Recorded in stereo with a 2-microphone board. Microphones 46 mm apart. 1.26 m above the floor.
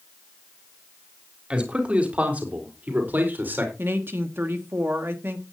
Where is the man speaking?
25° right (ahead or behind), 3.5 m; by 3.7 s 45° right (ahead or behind), 5 m.